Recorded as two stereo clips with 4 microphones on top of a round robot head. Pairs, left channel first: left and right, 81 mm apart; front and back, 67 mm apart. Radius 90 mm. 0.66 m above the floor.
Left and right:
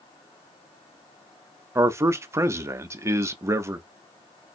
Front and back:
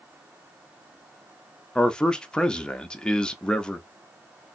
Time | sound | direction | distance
1.8 | a man speaking | 65° right | 0.7 m